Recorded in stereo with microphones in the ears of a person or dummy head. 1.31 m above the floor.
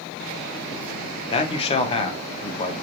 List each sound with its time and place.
1.3 s a man speaking: 25° left (ahead or behind), 0.5 m